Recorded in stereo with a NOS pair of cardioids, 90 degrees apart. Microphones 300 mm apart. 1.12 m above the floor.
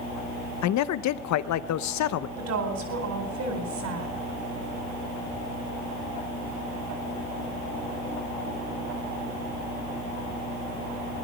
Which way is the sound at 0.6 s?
65° left.